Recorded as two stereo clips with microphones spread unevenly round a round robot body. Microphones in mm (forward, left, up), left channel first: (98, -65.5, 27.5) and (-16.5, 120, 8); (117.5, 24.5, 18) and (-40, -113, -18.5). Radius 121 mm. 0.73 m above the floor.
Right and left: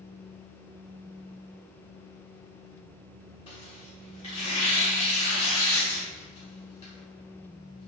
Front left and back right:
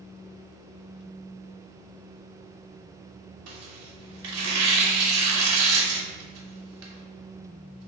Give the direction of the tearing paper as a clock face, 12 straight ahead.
4 o'clock.